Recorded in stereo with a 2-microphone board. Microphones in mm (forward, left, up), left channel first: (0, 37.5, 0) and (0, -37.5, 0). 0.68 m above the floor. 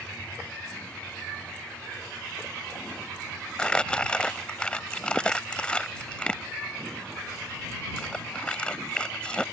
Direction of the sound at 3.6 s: 10° left (ahead or behind).